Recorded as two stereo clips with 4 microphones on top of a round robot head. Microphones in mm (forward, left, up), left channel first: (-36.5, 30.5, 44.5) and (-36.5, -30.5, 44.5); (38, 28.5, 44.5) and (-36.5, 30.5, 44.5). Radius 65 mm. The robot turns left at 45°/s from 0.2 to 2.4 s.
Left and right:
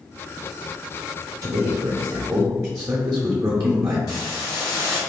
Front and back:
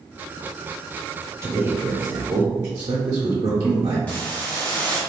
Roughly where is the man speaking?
Right.